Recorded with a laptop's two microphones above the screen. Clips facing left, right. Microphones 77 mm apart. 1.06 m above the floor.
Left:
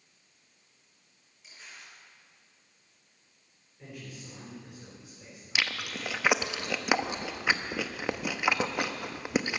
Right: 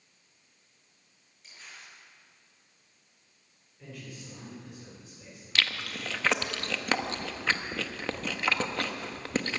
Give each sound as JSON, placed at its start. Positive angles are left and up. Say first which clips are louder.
{"t": 1.4, "sound": "crumpling", "louder": "even", "side_deg": 5, "distance_m": 6.5}
{"t": 3.8, "sound": "a man speaking", "louder": "even", "side_deg": 10, "distance_m": 4.5}
{"t": 5.5, "sound": "chewing", "louder": "even", "side_deg": 15, "distance_m": 0.9}